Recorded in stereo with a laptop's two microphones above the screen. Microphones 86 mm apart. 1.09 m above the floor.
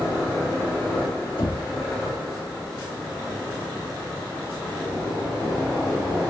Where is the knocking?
75° left (ahead or behind), 2 m.